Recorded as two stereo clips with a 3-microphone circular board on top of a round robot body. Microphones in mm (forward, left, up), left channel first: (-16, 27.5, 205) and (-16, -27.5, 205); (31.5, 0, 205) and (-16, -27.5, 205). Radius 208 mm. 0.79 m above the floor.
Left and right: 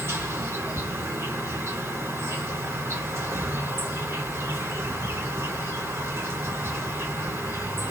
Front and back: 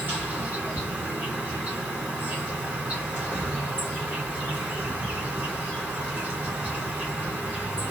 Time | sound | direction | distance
0.0 | an insect | 95° right | 2.0 m